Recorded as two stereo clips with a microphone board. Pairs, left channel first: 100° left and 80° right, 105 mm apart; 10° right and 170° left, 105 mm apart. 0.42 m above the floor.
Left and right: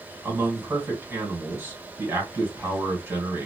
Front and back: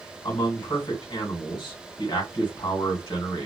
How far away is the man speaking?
About 1.9 m.